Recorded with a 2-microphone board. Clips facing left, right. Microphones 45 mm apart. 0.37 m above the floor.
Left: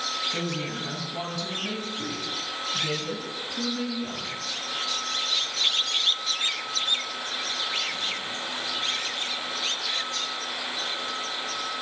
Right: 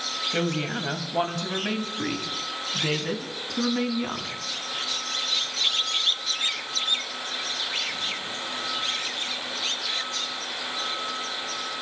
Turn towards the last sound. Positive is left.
turn(degrees=-70)  # may be behind; listen again after turning